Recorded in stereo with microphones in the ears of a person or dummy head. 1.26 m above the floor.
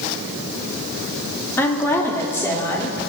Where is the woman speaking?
15° left (ahead or behind), 2 m.